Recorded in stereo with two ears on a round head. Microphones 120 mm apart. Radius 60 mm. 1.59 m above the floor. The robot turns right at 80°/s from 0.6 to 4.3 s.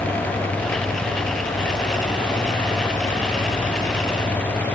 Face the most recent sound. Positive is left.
No sound to turn to.